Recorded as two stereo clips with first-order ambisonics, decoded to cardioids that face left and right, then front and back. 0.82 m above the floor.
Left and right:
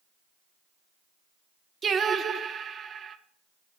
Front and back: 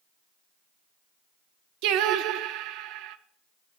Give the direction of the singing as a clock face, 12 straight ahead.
5 o'clock.